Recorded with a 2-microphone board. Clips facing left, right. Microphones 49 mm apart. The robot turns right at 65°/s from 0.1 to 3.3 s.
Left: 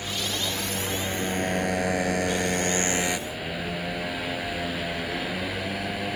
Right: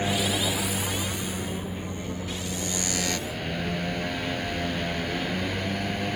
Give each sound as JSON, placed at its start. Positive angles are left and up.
{"t": 0.0, "sound": "a motorcycle", "azimuth_deg": -35}